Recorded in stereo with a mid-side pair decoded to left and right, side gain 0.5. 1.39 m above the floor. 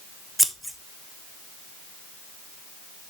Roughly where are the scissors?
Ahead.